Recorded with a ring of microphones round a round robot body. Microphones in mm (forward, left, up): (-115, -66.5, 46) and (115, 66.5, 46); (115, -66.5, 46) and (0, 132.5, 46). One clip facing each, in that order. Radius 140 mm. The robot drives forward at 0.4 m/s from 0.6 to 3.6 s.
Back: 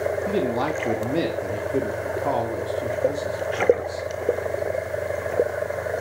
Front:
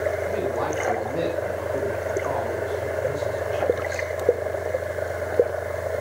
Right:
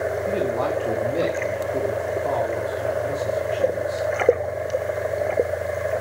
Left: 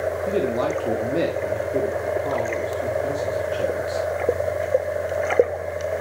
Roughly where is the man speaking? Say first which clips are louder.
Back 2 dB, left 3 dB; behind.